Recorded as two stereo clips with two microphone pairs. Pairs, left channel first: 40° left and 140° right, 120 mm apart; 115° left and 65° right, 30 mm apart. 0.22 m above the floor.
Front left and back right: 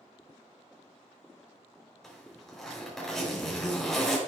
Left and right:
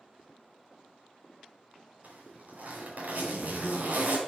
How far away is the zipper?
About 4.5 m.